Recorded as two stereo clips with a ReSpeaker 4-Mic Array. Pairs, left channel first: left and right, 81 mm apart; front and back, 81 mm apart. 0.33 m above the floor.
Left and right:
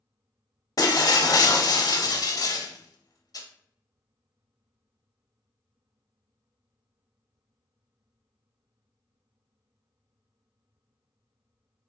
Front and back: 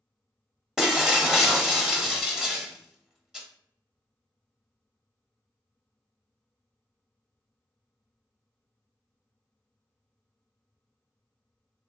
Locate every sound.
0.8 s breaking glass: 95° left, 0.8 m